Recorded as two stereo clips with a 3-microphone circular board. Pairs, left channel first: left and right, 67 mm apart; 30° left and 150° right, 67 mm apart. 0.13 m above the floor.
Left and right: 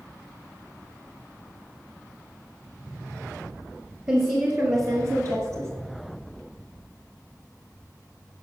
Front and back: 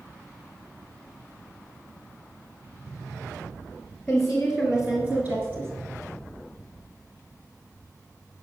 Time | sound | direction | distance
4.1 | a woman speaking | 50° right | 1.8 m